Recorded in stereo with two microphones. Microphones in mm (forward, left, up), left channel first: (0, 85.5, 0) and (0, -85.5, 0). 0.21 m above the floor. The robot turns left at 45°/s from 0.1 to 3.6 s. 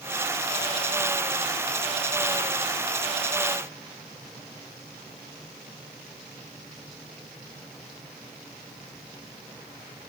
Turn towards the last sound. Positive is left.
No sound to turn to.